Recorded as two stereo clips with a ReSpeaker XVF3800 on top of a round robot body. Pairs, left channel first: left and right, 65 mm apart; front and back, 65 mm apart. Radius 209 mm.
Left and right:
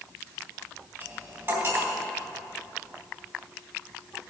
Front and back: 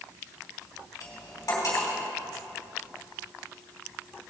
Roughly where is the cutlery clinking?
Ahead right.